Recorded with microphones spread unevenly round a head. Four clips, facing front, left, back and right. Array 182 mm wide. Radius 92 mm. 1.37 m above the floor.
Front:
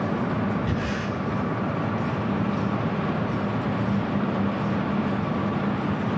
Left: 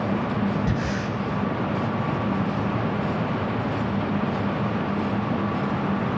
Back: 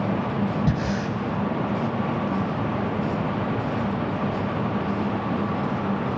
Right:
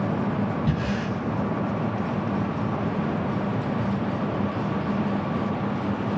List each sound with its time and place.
0.7 s breathing: 170° left, 6.5 m